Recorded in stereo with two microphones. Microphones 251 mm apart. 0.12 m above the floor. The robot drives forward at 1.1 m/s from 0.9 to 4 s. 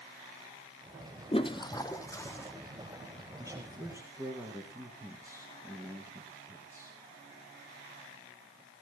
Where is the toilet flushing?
25° left (ahead or behind), 0.9 m; by 2.5 s 10° left (ahead or behind), 2 m.